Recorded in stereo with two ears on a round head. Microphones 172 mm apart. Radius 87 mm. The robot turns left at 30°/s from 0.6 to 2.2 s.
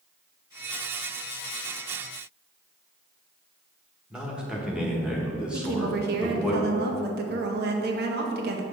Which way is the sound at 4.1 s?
5° right (ahead or behind).